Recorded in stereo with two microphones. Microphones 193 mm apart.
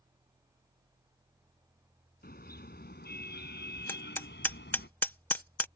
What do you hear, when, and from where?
2.2 s a car horn: 55° left (ahead or behind); by 4.9 s 70° left (ahead or behind)
3.9 s hammering: 10° left (ahead or behind)